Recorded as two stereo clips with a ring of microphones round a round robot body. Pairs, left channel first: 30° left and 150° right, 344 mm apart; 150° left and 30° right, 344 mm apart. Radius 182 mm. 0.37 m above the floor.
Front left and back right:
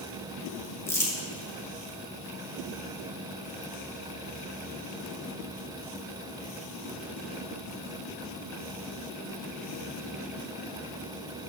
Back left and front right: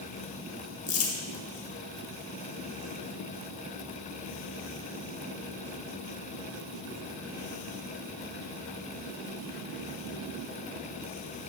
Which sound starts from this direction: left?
Crumpling, at 0.9 s.